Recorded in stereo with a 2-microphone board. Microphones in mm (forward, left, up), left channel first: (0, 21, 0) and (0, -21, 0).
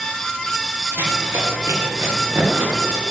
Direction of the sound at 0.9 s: 80° right.